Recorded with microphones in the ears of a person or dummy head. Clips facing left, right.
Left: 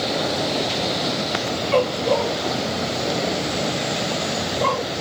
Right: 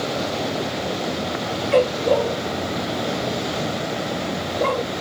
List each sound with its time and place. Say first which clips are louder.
1.7 s a dog barking: right 2 dB; 15° right (ahead or behind)